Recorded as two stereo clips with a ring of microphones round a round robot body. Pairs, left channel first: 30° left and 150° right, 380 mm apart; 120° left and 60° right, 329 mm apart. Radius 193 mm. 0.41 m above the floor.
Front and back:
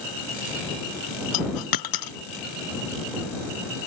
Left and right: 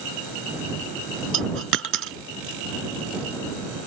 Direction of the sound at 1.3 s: 5° right.